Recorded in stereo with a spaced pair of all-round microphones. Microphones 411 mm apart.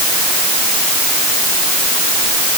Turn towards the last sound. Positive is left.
No sound to turn to.